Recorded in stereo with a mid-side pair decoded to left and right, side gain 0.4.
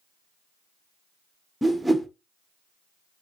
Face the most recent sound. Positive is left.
turn(degrees=-5)